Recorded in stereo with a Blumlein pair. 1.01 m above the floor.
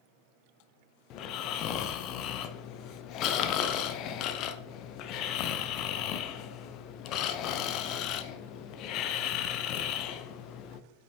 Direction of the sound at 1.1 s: 35° left.